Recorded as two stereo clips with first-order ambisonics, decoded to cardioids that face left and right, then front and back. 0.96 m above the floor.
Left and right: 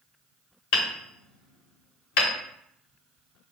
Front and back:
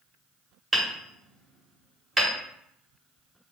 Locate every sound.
0.7 s hammering: 100° left, 1.1 m